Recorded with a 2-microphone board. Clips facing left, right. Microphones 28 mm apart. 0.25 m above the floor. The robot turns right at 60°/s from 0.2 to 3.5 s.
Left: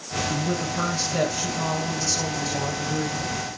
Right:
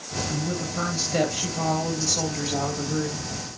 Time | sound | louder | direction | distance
0.3 | a woman speaking | left 3 dB | 165° left | 3.5 m